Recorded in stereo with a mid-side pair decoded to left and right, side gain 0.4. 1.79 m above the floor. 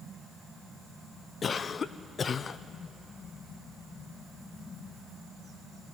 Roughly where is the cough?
Ahead left.